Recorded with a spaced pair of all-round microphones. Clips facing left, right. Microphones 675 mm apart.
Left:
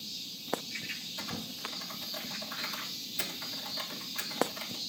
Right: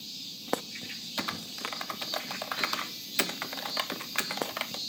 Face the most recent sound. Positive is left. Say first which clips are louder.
# right 3 dB
turn(degrees=-75)  # may be behind; listen again after turning